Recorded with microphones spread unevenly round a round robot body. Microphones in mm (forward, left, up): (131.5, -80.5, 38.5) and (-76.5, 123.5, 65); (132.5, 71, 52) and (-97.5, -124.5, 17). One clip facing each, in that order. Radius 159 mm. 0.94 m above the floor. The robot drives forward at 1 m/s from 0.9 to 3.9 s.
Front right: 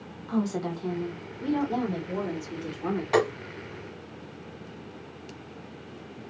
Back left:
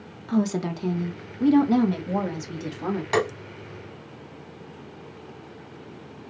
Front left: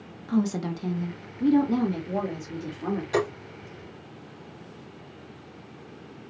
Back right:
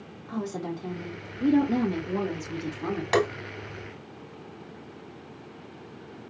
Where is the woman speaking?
90° left, 1.4 m; by 3.0 s 150° left, 2.5 m.